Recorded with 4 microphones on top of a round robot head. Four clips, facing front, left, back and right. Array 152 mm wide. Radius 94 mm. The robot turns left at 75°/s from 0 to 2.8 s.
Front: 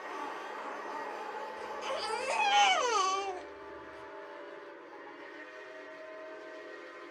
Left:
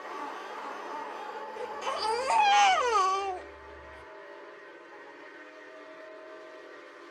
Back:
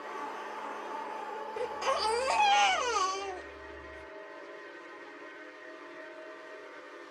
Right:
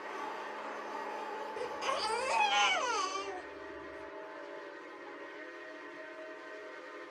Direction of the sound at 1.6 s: 165° left.